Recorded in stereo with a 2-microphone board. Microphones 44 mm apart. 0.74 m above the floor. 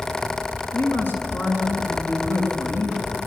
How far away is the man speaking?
About 6 m.